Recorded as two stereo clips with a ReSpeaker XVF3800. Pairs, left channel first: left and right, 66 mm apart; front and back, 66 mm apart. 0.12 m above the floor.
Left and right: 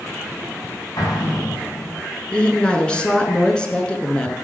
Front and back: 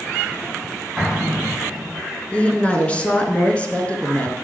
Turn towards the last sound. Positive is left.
turn(degrees=35)